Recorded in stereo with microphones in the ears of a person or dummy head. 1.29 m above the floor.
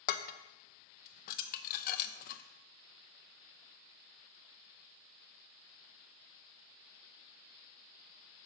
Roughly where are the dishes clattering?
Left.